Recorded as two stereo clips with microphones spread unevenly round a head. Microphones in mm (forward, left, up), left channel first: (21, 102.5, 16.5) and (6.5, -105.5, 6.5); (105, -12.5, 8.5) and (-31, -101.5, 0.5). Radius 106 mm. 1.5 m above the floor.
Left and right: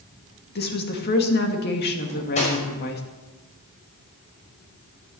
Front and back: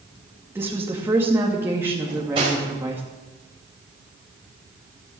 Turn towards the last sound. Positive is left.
turn(degrees=145)